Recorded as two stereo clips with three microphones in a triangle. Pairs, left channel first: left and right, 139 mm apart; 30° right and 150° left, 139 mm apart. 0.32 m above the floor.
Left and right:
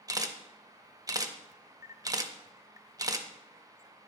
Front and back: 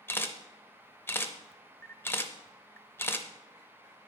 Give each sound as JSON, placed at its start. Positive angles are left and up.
{"t": 0.1, "sound": "a camera shutter", "azimuth_deg": -85, "distance_m": 0.6}